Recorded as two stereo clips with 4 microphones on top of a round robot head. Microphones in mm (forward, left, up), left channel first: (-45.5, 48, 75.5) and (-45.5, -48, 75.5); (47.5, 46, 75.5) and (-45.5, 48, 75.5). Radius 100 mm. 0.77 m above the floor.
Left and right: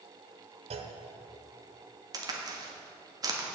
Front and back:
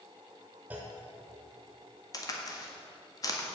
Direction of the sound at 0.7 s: 105° right.